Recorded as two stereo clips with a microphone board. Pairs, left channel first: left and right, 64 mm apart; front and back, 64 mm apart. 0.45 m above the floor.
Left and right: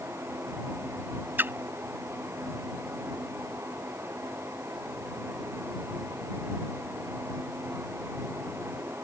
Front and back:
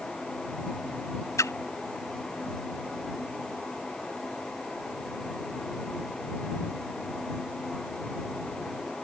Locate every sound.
1.4 s a splash: 35° right